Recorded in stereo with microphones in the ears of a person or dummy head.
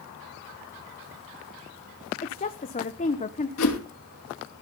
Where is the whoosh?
70° left (ahead or behind), 3 m.